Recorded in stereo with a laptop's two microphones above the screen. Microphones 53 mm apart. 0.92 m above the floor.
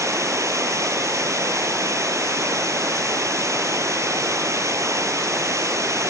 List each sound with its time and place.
0.0 s running water: 70° right (ahead or behind)